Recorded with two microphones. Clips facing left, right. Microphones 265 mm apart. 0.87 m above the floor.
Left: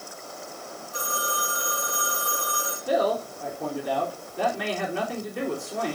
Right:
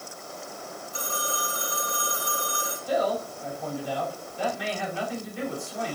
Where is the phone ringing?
70° left (ahead or behind), 2.5 m.